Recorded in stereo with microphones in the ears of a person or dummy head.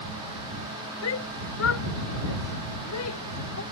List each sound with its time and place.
1.0 s a shout: 70° left (ahead or behind); by 3.6 s 75° left (ahead or behind)